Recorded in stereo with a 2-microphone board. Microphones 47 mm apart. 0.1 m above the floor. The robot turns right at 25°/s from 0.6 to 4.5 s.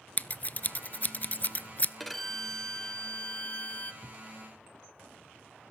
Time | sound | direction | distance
0.2 | scissors | 35° left (ahead or behind) | 0.5 m
2.0 | a violin | straight ahead | 0.7 m
4.0 | a thud | 25° left (ahead or behind) | 1.2 m